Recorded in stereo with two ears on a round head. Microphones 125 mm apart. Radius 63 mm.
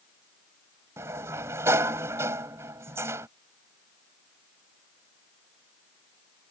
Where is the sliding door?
20° right (ahead or behind).